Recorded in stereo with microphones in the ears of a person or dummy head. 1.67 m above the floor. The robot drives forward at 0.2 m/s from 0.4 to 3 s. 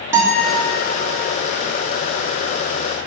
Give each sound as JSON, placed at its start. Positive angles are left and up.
{"t": 0.1, "sound": "a guitar", "side_deg": -15, "distance_m": 0.8}